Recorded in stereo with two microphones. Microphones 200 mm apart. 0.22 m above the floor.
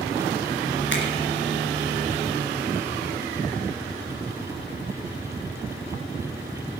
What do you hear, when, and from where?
0.9 s a finger snap: 60° left (ahead or behind), 3 m